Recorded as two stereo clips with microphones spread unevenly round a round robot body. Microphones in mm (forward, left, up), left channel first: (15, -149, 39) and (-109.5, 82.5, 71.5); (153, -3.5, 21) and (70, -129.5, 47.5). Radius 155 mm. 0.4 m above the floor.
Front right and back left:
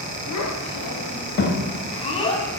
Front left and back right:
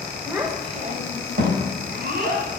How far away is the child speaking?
About 1.4 m.